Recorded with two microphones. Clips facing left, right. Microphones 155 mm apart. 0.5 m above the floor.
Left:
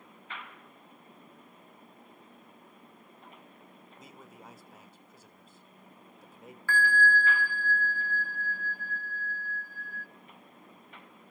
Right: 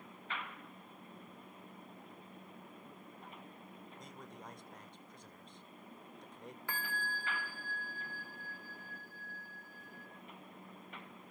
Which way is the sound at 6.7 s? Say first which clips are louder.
Left 16 dB; 20° right (ahead or behind).